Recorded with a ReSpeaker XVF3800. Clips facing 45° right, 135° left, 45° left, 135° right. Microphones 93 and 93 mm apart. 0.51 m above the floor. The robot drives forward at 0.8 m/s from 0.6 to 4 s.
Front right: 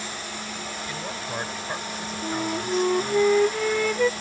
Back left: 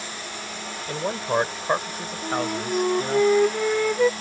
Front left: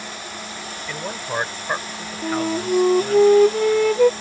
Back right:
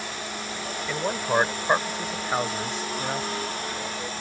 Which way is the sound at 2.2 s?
45° left.